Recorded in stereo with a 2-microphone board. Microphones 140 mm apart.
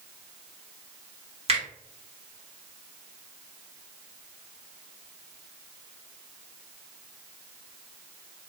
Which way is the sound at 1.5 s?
50° right (ahead or behind).